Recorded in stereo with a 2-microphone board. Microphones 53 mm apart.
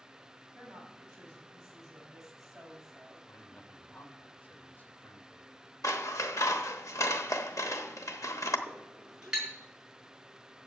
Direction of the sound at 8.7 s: 10° right (ahead or behind).